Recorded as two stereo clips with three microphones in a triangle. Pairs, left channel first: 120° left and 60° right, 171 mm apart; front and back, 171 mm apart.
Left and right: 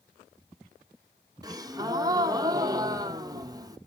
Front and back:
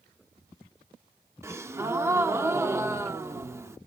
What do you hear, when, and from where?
1.4 s a gasp: 115° right, 0.5 m